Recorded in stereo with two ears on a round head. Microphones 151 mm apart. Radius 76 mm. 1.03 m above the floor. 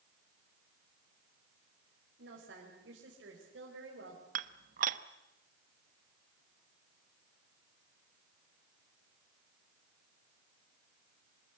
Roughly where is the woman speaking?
Right.